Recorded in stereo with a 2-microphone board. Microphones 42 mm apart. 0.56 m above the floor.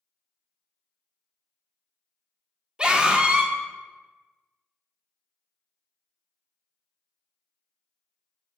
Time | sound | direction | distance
2.8 | a scream | 20° right (ahead or behind) | 1.0 m